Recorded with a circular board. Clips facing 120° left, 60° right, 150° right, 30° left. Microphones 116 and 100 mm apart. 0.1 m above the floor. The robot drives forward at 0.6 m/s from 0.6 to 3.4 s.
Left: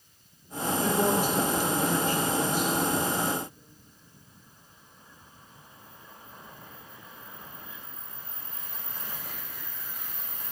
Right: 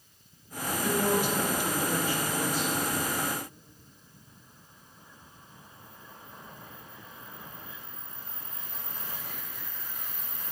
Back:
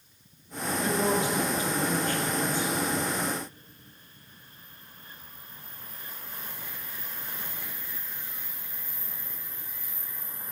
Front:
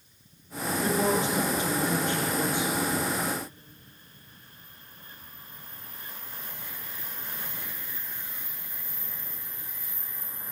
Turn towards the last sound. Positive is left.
turn(degrees=115)